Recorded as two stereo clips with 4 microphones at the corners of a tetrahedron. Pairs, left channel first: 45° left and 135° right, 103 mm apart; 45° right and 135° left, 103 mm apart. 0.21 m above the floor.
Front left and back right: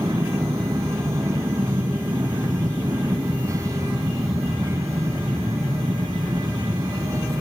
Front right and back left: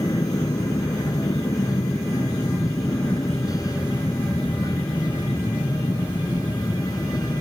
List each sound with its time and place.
0.0 s an aircraft: 85° right